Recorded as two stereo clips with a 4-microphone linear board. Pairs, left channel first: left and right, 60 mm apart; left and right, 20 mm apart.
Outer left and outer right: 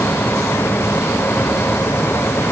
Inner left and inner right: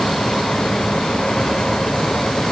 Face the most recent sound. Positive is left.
No sound to turn to.